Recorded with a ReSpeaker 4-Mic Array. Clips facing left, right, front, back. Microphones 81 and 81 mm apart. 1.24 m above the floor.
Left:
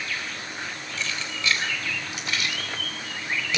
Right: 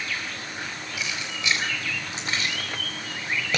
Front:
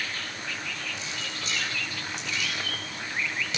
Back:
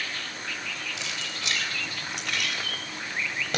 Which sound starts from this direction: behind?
Keys jangling, at 1.0 s.